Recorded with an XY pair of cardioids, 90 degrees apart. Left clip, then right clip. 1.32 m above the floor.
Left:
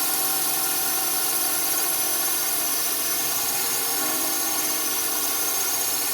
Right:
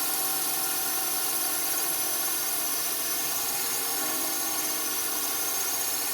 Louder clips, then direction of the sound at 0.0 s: Left 4 dB; 40° left.